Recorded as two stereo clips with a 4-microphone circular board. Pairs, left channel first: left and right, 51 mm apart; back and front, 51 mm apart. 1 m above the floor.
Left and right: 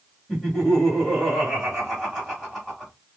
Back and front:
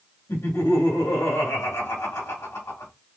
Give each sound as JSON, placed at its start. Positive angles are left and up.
{"t": 0.3, "sound": "laughter", "azimuth_deg": 180, "distance_m": 2.0}